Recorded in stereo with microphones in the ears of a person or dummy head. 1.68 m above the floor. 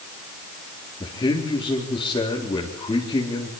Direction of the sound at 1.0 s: 20° left (ahead or behind).